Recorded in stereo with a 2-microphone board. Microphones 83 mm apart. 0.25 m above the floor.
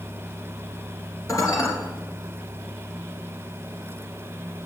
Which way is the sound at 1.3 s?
40° left (ahead or behind).